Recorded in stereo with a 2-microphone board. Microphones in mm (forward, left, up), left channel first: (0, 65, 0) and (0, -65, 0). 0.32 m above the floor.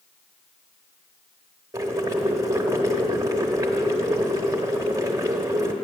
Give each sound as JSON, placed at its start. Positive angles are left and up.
{"t": 1.7, "sound": "boiling", "side_deg": -25, "distance_m": 0.9}